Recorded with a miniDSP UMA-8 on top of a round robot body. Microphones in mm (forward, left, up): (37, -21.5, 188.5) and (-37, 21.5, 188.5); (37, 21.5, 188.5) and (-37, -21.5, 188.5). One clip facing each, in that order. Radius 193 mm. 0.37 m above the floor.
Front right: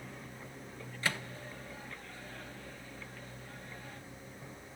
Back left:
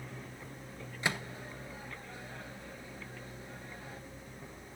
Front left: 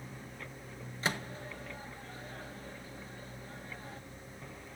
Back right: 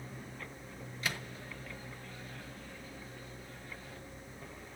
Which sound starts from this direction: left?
A microwave, at 1.0 s.